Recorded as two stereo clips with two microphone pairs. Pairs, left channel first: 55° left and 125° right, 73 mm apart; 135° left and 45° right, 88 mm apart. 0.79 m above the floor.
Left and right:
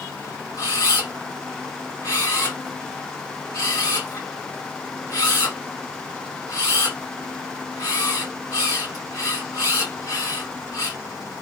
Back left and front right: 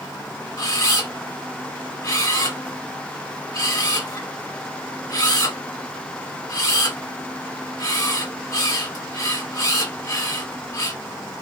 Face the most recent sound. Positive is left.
turn(degrees=90)